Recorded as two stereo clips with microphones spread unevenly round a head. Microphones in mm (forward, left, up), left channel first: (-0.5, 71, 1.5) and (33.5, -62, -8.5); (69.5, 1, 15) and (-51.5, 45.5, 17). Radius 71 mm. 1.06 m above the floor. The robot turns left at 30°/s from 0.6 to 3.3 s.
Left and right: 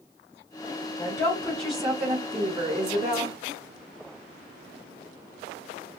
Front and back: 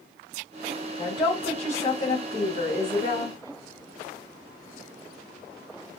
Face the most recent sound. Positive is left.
turn(degrees=-30)